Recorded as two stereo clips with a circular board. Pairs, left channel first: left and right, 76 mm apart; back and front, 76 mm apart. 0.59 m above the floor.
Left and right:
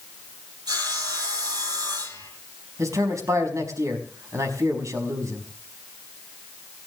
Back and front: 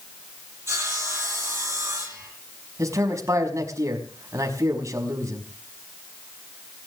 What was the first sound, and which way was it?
Sawing, 55° right.